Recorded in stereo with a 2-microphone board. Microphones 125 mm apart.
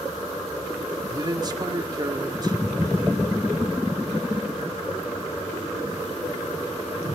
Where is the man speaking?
30° right (ahead or behind), 1.8 m.